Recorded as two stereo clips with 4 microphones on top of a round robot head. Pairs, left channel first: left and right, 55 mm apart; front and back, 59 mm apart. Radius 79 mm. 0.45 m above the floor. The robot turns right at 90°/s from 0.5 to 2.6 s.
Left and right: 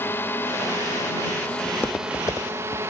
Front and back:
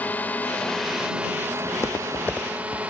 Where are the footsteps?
35° left; by 2.8 s 70° left.